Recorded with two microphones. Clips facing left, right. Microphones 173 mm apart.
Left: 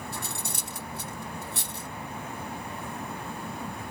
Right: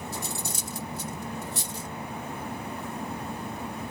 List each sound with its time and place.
0.1 s cutlery clinking: 60° left (ahead or behind)